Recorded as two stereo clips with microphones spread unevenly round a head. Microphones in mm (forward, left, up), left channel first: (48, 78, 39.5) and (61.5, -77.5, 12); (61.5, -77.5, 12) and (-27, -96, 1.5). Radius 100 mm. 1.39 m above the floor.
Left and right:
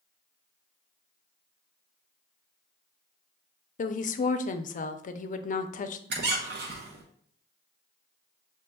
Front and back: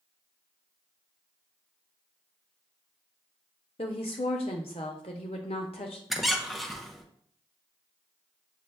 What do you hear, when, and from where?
3.8 s a woman speaking: 60° left, 0.6 m
6.1 s a squeak: 75° right, 0.9 m